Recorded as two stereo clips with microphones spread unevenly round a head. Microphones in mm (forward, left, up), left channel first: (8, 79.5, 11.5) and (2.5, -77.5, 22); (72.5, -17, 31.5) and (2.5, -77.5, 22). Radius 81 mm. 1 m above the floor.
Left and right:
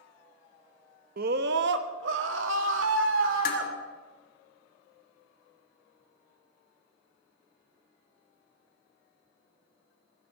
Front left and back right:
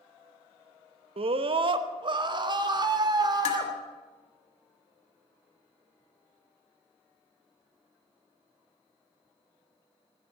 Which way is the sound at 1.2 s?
130° right.